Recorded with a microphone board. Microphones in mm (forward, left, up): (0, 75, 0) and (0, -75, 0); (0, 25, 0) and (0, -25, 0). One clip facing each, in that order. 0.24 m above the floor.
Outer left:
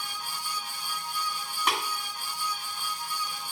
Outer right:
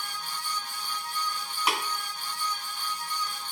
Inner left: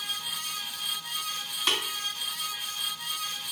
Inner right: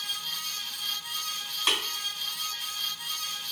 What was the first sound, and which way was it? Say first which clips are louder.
Tapping: even, even; 10° right (ahead or behind).